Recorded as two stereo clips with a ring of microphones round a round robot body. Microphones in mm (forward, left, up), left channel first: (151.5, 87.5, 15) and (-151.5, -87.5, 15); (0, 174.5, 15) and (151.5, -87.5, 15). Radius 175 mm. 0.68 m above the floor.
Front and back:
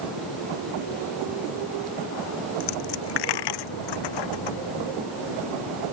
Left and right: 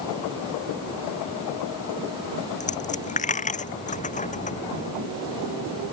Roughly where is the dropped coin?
Ahead left.